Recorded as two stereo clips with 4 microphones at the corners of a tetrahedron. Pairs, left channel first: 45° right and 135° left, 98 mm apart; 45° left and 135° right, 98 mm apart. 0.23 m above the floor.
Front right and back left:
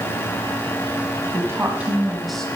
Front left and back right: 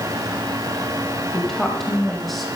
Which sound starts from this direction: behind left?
A woman speaking, at 1.3 s.